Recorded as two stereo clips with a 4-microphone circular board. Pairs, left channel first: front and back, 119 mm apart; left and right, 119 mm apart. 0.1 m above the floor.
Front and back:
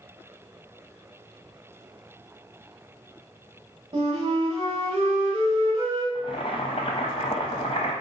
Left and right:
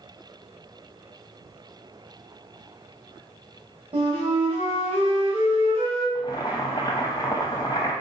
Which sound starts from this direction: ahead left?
Boiling, at 6.2 s.